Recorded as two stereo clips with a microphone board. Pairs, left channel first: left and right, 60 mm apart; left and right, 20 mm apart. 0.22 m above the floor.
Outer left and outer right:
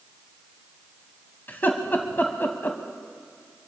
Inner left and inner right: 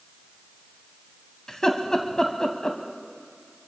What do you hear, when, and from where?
1.5 s laughter: 35° left (ahead or behind), 1.2 m